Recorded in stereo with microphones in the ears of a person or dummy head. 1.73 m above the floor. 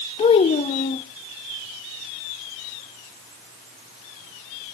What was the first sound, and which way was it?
A child speaking, 35° left (ahead or behind).